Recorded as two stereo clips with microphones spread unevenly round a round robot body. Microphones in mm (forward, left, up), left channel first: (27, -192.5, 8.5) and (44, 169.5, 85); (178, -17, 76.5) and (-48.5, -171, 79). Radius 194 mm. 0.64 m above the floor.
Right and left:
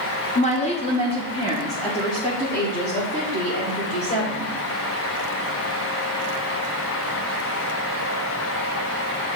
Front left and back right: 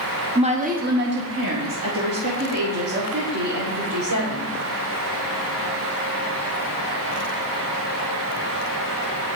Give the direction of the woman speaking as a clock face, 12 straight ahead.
3 o'clock.